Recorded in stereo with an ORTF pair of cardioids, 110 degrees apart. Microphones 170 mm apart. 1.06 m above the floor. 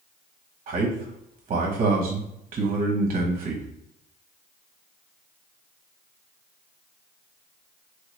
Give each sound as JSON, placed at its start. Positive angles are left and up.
{"t": 0.7, "sound": "a man speaking", "azimuth_deg": -40, "distance_m": 0.8}